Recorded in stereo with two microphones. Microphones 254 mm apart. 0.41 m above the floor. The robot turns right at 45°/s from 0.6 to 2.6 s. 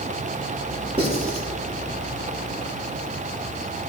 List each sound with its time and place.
1.0 s writing: 25° right (ahead or behind), 3 m; by 1.5 s 45° right (ahead or behind), 3 m